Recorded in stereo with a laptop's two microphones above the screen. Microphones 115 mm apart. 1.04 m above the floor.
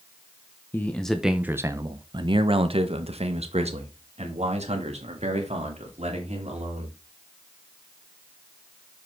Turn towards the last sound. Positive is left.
turn(degrees=-70)  # may be behind; listen again after turning